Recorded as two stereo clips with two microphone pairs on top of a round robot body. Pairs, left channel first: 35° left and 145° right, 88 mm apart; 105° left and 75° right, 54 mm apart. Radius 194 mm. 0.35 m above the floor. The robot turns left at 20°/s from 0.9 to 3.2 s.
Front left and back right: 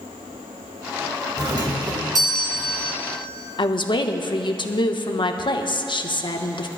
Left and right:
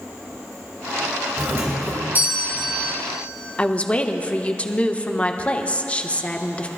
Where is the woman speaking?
40° left, 1.3 m.